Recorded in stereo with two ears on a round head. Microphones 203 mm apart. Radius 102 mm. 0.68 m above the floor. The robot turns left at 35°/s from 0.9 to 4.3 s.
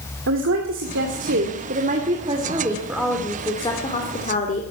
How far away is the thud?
No thud in this recording.